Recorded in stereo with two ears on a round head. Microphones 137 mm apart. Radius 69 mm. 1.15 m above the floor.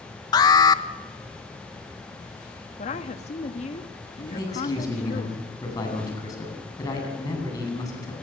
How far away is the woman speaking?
About 1.5 m.